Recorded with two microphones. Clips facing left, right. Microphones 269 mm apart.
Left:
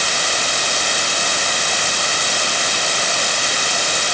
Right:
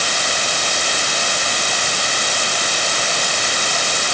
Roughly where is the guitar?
No guitar in this recording.